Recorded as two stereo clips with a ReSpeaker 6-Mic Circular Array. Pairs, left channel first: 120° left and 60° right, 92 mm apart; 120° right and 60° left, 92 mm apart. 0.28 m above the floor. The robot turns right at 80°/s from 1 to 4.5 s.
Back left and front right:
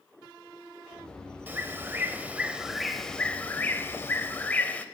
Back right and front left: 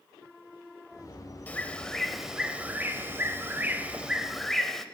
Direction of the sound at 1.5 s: 85° right.